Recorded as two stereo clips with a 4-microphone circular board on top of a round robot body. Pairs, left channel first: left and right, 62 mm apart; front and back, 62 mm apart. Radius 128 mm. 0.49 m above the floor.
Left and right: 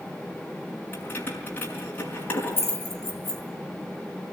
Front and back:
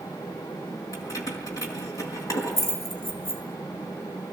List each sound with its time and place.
0.9 s keys jangling: 30° left, 5.5 m